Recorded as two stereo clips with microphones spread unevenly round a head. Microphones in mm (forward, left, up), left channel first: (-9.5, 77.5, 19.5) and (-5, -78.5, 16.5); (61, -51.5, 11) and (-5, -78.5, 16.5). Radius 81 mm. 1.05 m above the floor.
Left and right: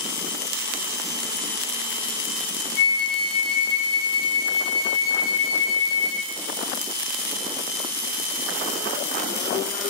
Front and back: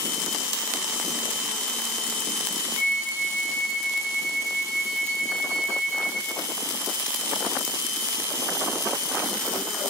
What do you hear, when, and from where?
2.8 s a flute: 55° left, 3 m